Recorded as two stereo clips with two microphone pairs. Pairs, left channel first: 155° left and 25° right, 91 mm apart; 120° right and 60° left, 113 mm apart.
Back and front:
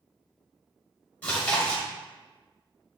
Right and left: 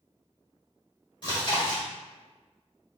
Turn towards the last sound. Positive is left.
turn(degrees=-145)